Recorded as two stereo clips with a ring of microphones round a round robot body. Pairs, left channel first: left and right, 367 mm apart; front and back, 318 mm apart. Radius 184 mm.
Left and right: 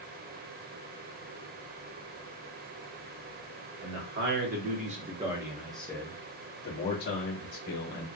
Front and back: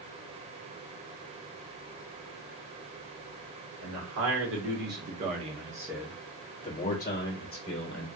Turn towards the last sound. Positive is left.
turn(degrees=45)